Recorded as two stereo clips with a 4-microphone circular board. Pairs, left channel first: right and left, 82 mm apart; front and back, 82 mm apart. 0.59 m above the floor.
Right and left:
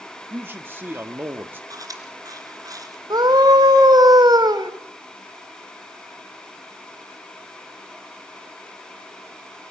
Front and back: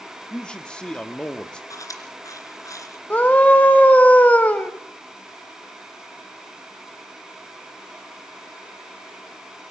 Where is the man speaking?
65° left, 0.9 m.